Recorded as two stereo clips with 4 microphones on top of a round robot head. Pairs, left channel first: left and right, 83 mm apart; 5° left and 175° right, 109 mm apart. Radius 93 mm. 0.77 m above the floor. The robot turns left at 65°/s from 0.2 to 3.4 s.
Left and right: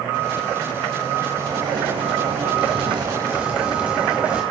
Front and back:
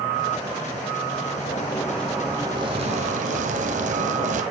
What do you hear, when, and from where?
1.3 s a zipper: 35° right, 1.3 m; by 4.4 s 170° right, 1.3 m